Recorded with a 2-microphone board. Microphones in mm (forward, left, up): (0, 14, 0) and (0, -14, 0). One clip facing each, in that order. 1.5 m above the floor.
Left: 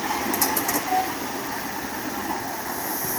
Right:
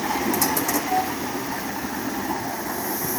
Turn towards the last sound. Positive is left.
No sound to turn to.